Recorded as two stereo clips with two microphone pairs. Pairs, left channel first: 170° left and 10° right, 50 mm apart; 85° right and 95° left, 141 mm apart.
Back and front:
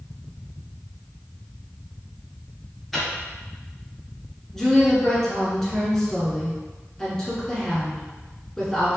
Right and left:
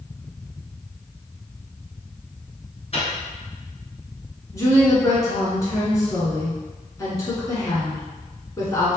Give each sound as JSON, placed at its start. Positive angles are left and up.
{"t": 2.9, "sound": "a microwave", "azimuth_deg": -100, "distance_m": 1.3}
{"t": 4.5, "sound": "a woman speaking", "azimuth_deg": -115, "distance_m": 1.3}